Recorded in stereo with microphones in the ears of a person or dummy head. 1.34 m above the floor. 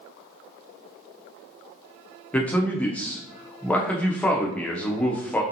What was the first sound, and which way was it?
A man speaking, 15° left (ahead or behind).